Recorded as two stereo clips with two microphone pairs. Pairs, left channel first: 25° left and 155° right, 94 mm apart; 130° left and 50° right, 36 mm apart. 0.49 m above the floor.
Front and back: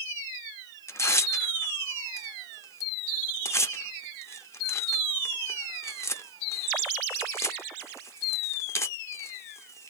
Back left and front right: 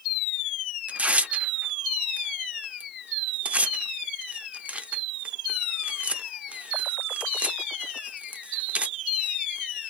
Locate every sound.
0.9 s tearing paper: 20° right, 0.6 m